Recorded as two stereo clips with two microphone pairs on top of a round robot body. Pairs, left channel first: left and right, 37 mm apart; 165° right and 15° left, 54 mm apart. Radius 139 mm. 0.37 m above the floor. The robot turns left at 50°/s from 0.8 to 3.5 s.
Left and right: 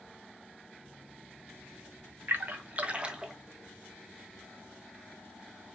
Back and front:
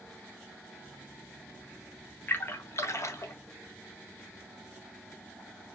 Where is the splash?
120° right, 0.8 m; by 3.3 s 170° right, 0.8 m.